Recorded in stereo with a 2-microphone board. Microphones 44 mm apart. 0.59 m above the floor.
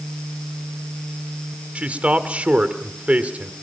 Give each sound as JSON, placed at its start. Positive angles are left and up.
{"t": 1.8, "sound": "a man speaking", "side_deg": -30, "distance_m": 1.5}